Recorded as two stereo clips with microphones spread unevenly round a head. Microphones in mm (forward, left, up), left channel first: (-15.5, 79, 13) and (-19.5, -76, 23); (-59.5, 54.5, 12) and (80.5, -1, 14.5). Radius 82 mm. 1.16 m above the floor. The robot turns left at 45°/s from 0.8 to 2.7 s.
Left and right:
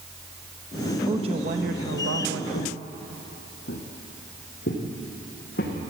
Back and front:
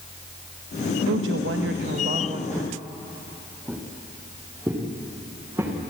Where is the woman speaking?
25° right, 1.0 m; by 2.4 s 85° right, 1.0 m.